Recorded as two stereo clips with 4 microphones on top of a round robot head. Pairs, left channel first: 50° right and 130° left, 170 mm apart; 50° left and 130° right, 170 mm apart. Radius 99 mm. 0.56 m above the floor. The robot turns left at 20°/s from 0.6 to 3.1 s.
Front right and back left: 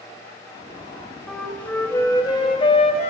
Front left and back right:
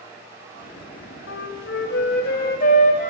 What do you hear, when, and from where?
1.3 s a flute: 40° left, 0.9 m; by 3.1 s straight ahead, 0.9 m